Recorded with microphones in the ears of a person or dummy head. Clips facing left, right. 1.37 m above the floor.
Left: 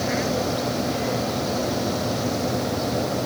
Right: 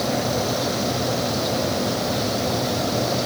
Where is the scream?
I don't hear a scream.